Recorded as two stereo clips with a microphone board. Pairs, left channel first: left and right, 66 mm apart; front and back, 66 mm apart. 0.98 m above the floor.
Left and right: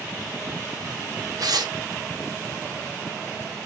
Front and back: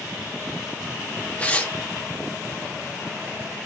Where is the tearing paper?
70° right, 1.0 m.